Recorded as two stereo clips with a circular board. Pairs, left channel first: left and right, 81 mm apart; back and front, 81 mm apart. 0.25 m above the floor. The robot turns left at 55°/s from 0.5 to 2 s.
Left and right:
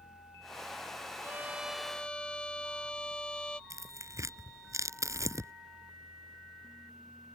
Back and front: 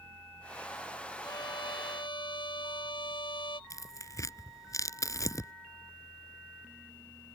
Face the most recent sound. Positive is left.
turn(degrees=-135)